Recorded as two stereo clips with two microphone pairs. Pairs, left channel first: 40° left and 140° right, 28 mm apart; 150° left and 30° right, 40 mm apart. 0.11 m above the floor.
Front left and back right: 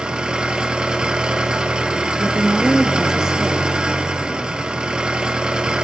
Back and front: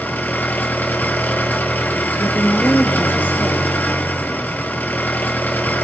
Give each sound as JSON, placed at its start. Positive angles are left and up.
{"t": 0.0, "sound": "an engine running", "azimuth_deg": 170, "distance_m": 1.7}
{"t": 2.2, "sound": "a woman speaking", "azimuth_deg": 150, "distance_m": 2.5}